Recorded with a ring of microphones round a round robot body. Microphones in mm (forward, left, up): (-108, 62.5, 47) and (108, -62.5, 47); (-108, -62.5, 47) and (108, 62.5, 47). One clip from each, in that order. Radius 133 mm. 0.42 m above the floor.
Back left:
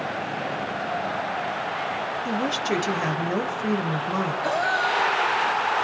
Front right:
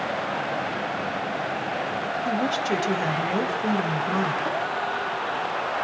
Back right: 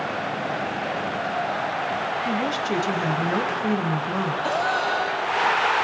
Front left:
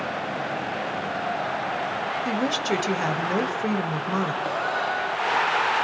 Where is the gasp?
140° left, 3.5 m.